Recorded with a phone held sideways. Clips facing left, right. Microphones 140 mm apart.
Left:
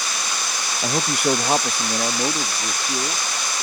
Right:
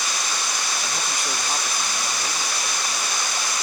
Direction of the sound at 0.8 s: 60° left (ahead or behind).